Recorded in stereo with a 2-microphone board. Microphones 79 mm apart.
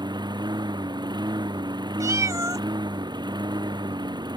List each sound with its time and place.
0.0 s a lawn mower: 70° right (ahead or behind)
2.0 s a cat meowing: 45° right (ahead or behind)